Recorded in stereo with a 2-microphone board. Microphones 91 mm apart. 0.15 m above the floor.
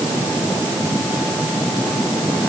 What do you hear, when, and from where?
Only background noise.